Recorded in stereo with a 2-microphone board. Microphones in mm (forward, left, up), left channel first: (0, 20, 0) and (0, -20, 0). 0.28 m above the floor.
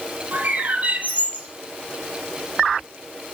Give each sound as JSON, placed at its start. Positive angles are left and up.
{"t": 0.3, "sound": "a bird", "side_deg": -40, "distance_m": 1.5}